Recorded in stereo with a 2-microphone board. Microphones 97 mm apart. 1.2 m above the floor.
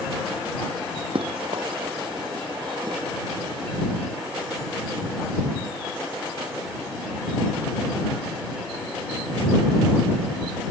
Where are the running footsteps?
65° right (ahead or behind); by 3.0 s 50° right (ahead or behind).